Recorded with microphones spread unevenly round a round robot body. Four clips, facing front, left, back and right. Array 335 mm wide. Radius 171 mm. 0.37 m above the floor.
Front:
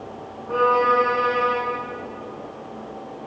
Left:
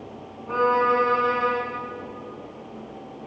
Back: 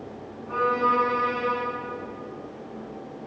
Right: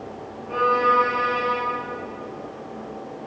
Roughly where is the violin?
Ahead left.